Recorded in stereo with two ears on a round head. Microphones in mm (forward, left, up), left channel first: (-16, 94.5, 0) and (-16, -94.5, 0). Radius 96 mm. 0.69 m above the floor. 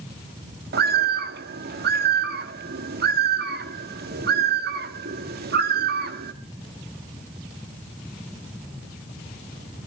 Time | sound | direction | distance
0.7 | a bird | 50° right (ahead or behind) | 1.3 m